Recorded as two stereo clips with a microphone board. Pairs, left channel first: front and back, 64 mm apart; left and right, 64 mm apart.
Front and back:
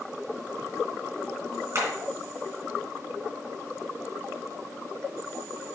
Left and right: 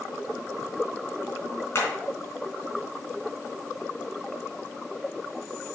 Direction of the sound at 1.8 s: 140° left.